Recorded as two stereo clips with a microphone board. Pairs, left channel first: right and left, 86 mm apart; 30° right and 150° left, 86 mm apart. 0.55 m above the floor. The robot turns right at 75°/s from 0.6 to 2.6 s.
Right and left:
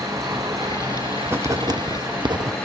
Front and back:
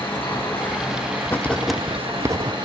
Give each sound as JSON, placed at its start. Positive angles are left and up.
{"t": 0.0, "sound": "an engine running", "azimuth_deg": 35, "distance_m": 9.5}
{"t": 1.3, "sound": "writing", "azimuth_deg": 30, "distance_m": 0.6}